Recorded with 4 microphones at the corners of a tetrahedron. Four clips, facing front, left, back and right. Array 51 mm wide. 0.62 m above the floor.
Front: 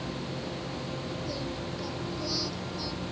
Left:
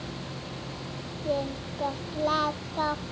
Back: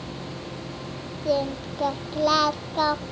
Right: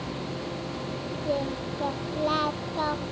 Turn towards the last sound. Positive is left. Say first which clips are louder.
# even, back 10 dB
turn(degrees=175)